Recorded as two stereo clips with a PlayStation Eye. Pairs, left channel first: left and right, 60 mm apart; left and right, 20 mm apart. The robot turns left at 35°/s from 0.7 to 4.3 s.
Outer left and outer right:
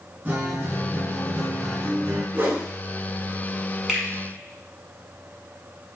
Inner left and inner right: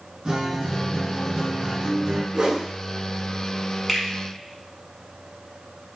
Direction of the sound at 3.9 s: 10° right (ahead or behind).